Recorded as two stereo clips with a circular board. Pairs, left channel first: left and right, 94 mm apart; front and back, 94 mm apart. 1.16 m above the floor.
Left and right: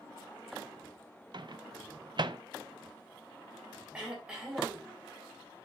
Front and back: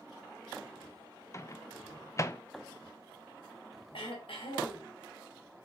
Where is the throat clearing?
10° right, 3 m.